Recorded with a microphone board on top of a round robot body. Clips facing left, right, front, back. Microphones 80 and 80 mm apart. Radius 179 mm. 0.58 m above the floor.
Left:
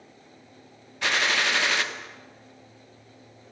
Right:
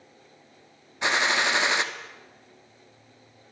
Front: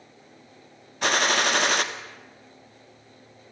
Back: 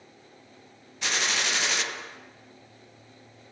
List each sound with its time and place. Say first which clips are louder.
1.0 s a gunshot: right 1 dB, front 7 dB; 25° right, 2.0 m